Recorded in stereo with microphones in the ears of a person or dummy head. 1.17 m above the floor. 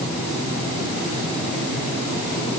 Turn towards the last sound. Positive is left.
No sound to turn to.